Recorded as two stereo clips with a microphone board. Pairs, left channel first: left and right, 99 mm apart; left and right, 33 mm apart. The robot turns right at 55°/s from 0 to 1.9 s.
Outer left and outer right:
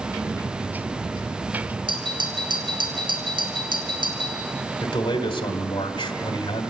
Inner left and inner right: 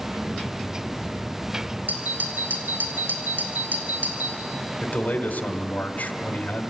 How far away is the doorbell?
About 3 m.